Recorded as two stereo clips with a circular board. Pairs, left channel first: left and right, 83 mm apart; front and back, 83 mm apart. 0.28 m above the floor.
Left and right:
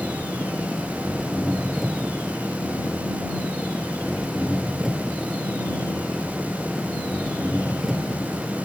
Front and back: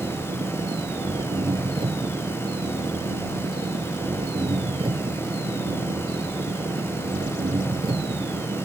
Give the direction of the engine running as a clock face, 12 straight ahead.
6 o'clock.